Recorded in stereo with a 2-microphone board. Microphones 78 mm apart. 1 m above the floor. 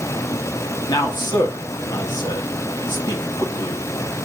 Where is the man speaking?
65° left (ahead or behind), 1.9 m.